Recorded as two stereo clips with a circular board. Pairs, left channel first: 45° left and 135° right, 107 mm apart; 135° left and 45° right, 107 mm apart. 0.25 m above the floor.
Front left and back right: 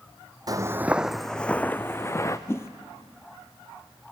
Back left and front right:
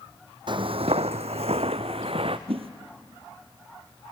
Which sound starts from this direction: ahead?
A whoosh, at 2.5 s.